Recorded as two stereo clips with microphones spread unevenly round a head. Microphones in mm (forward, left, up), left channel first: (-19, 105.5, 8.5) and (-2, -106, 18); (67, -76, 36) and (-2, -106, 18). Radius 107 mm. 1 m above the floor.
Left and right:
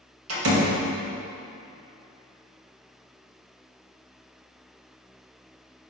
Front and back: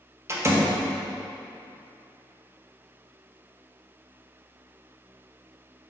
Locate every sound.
0.3 s a door slam: 105° right, 1.5 m